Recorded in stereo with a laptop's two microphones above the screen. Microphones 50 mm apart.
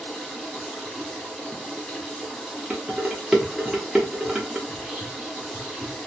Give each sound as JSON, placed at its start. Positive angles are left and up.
{"t": 0.0, "sound": "running water", "side_deg": 0, "distance_m": 1.0}
{"t": 2.7, "sound": "dishes clattering", "side_deg": -15, "distance_m": 1.0}
{"t": 4.7, "sound": "whispering", "side_deg": -10, "distance_m": 0.9}